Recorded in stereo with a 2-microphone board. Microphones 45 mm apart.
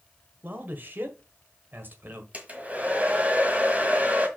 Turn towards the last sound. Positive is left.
turn(degrees=-30)  # may be behind; listen again after turning